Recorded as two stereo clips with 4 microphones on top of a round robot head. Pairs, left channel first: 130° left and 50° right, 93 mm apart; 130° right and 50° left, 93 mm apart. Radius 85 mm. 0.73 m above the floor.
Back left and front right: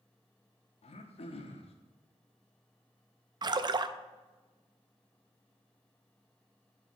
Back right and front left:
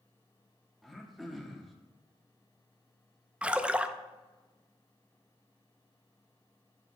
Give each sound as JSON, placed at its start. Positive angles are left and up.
{"t": 0.8, "sound": "throat clearing", "azimuth_deg": 140, "distance_m": 0.8}
{"t": 3.4, "sound": "a splash", "azimuth_deg": -25, "distance_m": 0.5}